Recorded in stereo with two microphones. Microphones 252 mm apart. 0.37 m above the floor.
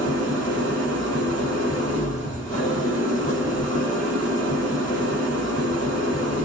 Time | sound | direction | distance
0.0 | an engine running | 30° left (ahead or behind) | 7 m
2.2 | ticking | 60° left (ahead or behind) | 6.5 m